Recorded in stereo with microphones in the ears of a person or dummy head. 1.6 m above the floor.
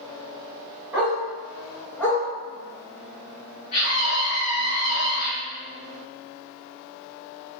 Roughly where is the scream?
Left.